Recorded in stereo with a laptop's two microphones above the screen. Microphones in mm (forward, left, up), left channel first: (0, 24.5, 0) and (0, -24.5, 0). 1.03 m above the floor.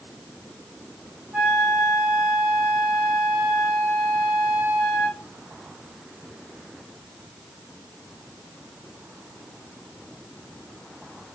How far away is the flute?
About 1.0 m.